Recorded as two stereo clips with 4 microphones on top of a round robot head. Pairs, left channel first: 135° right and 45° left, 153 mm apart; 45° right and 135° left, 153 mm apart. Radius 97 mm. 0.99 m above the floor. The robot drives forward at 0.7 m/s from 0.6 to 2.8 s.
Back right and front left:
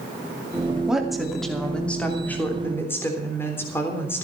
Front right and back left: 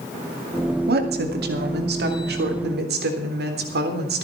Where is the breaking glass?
I don't hear breaking glass.